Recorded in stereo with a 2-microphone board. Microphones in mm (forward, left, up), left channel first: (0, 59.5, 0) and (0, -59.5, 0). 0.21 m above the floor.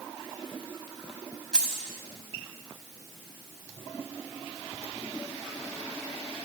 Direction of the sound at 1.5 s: 5° left (ahead or behind).